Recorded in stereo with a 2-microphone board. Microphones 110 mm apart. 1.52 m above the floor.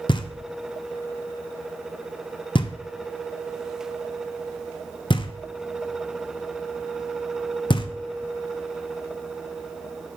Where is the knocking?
45° left (ahead or behind), 0.6 m.